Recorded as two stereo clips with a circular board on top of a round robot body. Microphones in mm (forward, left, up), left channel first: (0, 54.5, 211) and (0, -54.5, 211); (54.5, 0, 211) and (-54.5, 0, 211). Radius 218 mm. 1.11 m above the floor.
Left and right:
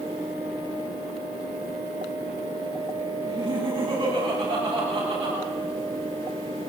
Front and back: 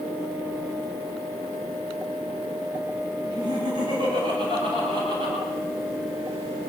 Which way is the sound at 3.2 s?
130° right.